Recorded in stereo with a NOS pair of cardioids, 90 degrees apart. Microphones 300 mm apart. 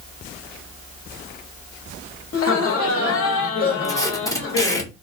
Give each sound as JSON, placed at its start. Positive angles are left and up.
{"t": 2.3, "sound": "laughter", "azimuth_deg": 50, "distance_m": 1.1}
{"t": 3.8, "sound": "tape being pulled", "azimuth_deg": 10, "distance_m": 0.8}